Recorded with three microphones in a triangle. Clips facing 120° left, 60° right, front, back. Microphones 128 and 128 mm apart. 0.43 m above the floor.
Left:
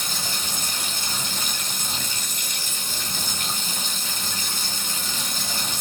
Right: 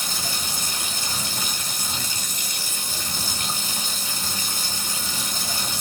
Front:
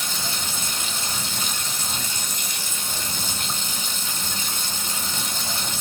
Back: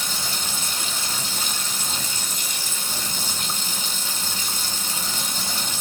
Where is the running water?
100° right, 1.1 m.